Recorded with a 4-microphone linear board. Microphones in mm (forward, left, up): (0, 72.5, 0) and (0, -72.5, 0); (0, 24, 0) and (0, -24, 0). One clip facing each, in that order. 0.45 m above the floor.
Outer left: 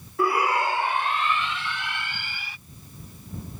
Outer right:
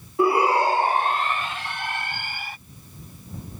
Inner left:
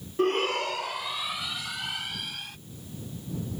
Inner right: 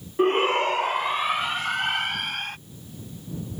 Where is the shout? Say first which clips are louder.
Outer right 4 dB, inner right 5 dB; 20° right (ahead or behind); by 2.6 s 50° right (ahead or behind).